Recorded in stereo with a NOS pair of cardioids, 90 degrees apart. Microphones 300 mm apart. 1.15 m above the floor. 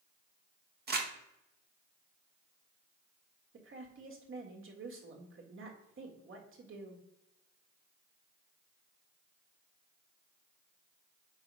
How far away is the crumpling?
About 1.4 m.